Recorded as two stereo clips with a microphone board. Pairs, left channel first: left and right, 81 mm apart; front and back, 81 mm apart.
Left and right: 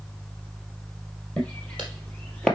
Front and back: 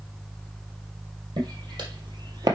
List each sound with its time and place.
1.4 s footsteps: 165° left, 3 m